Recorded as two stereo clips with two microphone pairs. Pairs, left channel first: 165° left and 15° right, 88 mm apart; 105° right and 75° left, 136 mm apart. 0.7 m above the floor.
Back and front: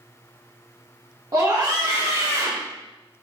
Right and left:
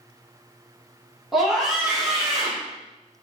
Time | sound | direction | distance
1.3 | a scream | 10° right | 0.9 m